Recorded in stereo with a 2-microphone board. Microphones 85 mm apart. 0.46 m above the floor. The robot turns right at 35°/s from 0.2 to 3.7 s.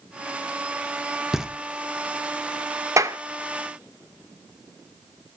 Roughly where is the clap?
Right.